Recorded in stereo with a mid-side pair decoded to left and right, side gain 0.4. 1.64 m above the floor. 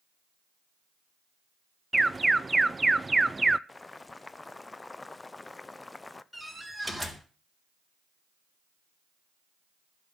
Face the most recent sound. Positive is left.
turn(degrees=5)